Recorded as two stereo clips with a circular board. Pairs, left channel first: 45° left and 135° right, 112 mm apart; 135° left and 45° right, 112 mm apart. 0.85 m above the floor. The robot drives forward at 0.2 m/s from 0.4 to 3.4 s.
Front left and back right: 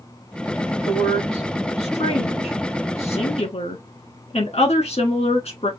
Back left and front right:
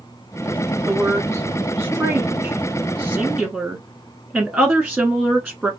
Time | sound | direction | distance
0.9 | a woman speaking | 30° left | 1.6 m